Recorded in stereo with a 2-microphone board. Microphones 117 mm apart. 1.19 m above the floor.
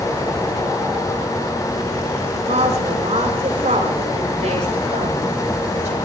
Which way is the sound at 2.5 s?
80° right.